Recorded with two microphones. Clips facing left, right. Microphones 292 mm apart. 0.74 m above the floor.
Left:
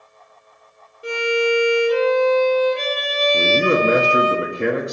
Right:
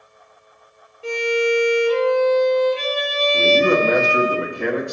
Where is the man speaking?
20° left (ahead or behind), 0.9 m.